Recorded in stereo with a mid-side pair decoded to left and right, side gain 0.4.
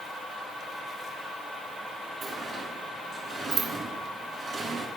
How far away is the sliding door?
About 2.5 m.